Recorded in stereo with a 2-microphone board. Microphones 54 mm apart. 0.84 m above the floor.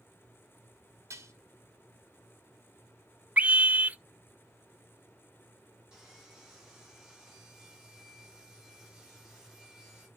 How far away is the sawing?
About 5 m.